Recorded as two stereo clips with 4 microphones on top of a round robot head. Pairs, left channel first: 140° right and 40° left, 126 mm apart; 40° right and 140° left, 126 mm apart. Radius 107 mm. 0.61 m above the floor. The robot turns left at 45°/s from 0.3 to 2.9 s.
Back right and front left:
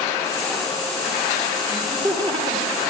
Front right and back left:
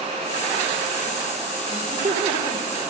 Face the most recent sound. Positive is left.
turn(degrees=55)